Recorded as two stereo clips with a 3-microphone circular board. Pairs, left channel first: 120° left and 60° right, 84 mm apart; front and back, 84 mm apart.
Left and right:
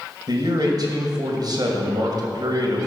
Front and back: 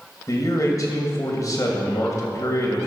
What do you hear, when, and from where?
0.3 s a man speaking: 40° right, 2.5 m